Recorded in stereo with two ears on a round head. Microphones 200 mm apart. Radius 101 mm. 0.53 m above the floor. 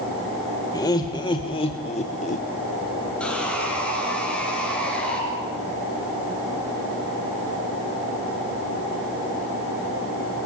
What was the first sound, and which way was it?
Laughter, 15° left (ahead or behind).